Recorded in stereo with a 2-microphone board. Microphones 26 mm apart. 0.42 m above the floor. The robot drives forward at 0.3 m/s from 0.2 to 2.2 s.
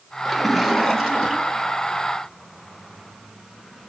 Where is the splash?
5° right (ahead or behind), 0.9 m; by 1.8 s centre (ahead or behind), 1.4 m.